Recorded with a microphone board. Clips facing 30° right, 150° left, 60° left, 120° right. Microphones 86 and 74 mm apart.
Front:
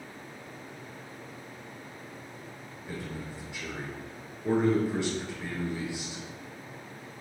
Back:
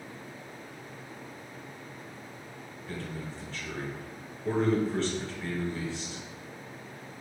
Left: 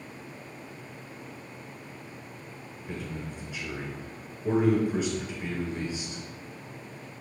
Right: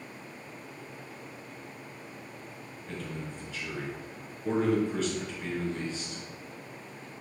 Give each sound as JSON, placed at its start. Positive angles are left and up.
{"t": 2.9, "sound": "a man speaking", "azimuth_deg": 10, "distance_m": 1.1}